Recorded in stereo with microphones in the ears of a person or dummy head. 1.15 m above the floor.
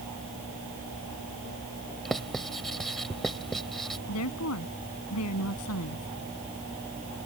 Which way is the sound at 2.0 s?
Centre (ahead or behind).